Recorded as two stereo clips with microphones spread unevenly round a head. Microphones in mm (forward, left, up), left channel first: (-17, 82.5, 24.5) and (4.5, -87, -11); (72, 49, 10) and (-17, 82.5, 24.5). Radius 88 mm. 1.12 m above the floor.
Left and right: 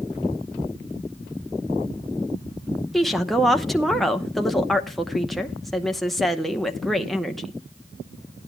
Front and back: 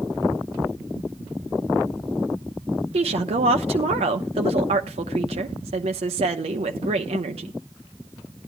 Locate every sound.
2.9 s a woman speaking: 170° right, 0.8 m